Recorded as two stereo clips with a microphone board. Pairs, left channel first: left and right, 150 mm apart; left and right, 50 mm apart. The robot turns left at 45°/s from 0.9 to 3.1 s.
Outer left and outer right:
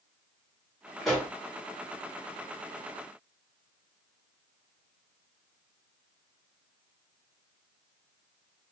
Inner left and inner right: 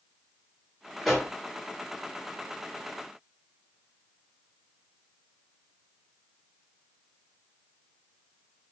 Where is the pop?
Centre (ahead or behind), 2.5 m; by 1.3 s 10° right (ahead or behind), 2.5 m.